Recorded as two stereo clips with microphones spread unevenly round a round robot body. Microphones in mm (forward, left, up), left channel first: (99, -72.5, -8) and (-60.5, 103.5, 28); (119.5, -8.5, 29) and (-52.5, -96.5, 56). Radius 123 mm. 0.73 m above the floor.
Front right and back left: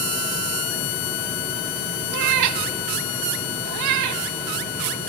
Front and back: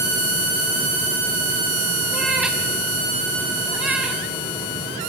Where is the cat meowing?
120° left, 1.2 m.